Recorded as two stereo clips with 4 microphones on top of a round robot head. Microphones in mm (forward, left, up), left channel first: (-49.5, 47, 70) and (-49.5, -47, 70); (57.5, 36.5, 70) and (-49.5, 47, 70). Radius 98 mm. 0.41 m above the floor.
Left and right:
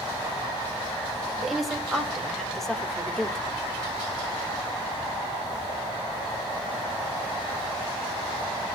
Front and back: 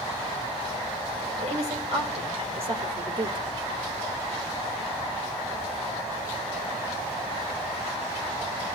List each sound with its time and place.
1.4 s a woman speaking: straight behind, 3 m; by 3.5 s 175° left, 1.7 m